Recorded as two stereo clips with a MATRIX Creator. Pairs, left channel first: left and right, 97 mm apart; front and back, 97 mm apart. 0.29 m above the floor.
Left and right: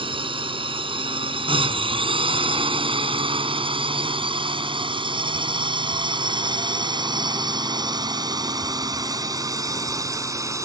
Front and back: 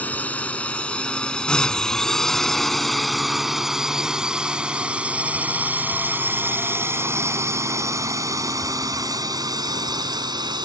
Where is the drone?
75° right; by 10.7 s 145° right.